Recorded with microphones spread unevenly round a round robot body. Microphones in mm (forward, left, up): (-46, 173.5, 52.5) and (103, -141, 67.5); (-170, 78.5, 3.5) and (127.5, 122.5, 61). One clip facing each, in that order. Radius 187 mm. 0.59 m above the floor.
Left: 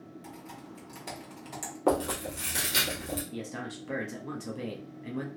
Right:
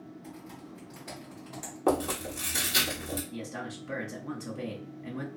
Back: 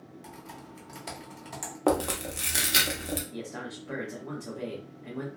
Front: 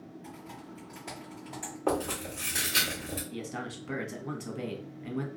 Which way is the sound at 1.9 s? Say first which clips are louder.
Even, back 4 dB; 155° right.